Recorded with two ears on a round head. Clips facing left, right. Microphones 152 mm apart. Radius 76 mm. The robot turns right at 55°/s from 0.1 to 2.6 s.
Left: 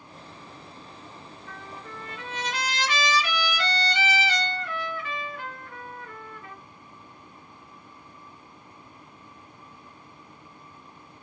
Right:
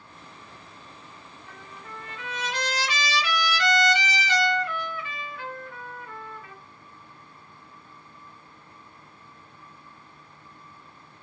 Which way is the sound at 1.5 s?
75° left.